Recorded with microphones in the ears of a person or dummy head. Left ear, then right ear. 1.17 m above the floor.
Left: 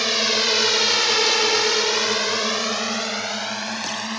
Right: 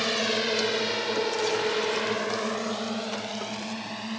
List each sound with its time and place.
0.0 s a drone: 30° left (ahead or behind); by 4.2 s 45° left (ahead or behind)